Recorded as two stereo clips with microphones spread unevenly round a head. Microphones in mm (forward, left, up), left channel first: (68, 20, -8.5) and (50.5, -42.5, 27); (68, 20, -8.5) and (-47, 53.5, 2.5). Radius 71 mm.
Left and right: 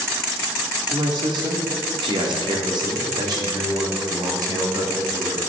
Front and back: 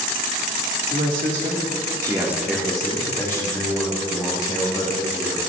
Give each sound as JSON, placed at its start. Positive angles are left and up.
{"t": 0.9, "sound": "a man speaking", "azimuth_deg": -165, "distance_m": 2.5}